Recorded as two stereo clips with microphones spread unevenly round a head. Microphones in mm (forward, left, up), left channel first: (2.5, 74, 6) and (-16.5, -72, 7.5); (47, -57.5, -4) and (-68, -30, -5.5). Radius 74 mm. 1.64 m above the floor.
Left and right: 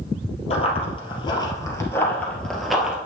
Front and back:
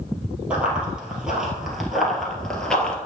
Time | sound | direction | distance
0.5 | running footsteps | 90° left | 2 m